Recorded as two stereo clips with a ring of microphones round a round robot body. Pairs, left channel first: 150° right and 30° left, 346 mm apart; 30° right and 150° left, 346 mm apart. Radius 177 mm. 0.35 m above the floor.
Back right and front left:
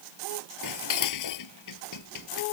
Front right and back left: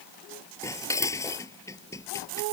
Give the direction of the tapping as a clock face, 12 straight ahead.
I don't hear tapping.